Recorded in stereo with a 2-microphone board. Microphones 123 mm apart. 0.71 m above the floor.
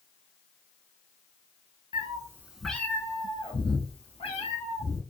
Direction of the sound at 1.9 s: 35° right (ahead or behind).